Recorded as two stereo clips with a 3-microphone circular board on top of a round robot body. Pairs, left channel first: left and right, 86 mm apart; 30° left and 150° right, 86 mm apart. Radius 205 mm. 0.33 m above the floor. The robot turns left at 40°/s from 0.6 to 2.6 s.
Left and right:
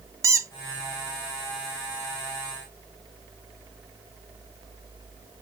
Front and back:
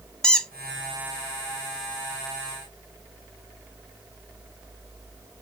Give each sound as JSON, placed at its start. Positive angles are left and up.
{"t": 0.2, "sound": "a squeak", "azimuth_deg": -50, "distance_m": 0.7}